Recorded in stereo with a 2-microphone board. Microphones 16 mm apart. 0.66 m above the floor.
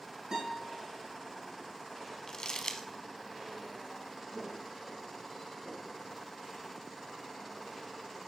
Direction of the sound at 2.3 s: 40° left (ahead or behind).